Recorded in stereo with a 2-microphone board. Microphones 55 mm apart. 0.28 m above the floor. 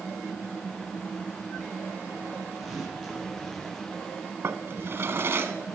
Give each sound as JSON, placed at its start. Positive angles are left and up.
{"t": 2.6, "sound": "tearing paper", "side_deg": 0, "distance_m": 8.5}
{"t": 4.4, "sound": "a drawer", "side_deg": -45, "distance_m": 1.1}